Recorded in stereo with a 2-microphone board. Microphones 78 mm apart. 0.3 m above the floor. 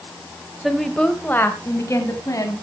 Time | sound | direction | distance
0.6 | a woman speaking | 5° right (ahead or behind) | 1.3 m